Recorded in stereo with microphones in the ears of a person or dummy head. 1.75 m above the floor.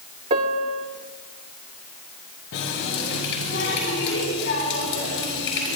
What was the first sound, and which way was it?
A piano, 35° right (ahead or behind).